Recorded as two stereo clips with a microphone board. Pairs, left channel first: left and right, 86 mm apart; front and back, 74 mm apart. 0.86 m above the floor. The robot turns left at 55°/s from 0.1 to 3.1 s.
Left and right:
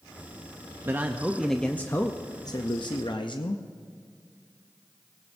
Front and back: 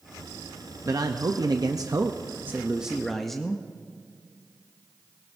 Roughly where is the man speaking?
Behind right.